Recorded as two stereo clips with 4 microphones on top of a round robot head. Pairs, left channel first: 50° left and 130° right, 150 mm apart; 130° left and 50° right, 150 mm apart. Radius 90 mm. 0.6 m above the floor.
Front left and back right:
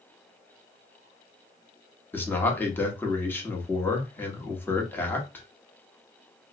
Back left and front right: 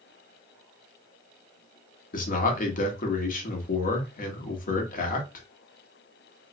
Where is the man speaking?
125° left, 1.1 m.